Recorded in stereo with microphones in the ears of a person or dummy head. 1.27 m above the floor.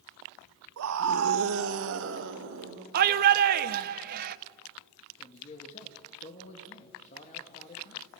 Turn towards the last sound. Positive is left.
turn(degrees=35)  # may be behind; listen again after turning